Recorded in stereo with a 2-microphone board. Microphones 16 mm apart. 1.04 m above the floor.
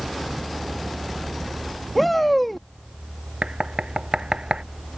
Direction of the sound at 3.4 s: 70° right (ahead or behind).